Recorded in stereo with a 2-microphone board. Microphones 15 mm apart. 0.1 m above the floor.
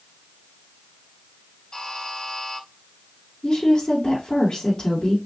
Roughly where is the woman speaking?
Left.